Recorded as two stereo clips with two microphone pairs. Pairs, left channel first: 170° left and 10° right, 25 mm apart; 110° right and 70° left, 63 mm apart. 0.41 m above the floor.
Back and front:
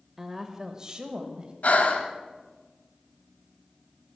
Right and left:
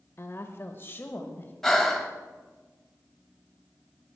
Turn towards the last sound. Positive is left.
turn(degrees=165)